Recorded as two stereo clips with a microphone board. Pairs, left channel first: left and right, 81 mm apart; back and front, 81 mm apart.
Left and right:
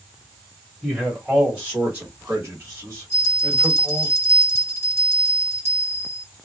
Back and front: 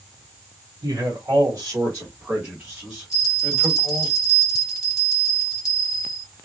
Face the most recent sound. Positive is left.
turn(degrees=-85)